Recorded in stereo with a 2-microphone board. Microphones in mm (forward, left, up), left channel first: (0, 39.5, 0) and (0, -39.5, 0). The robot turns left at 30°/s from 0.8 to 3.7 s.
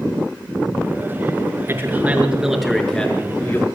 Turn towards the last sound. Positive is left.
turn(degrees=150)